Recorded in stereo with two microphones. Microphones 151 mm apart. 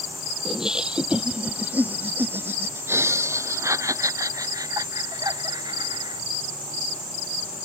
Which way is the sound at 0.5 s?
5° right (ahead or behind).